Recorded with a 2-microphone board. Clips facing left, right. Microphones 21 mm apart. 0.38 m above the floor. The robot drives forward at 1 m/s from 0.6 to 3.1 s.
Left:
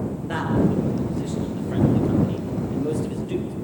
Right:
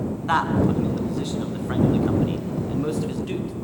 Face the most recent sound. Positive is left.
turn(degrees=-65)  # may be behind; listen again after turning